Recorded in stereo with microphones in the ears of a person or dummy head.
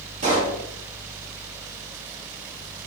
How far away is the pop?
About 0.8 m.